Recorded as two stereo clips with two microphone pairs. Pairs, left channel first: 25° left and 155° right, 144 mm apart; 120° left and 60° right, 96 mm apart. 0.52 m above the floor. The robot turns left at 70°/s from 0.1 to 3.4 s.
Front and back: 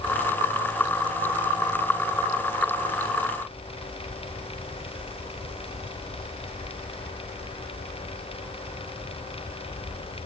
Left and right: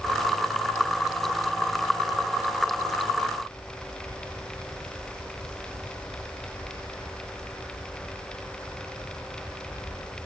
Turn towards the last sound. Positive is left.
No sound to turn to.